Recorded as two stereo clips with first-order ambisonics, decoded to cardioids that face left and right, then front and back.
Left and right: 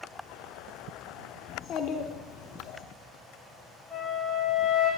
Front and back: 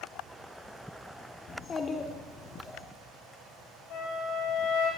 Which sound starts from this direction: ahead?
A flute, at 3.9 s.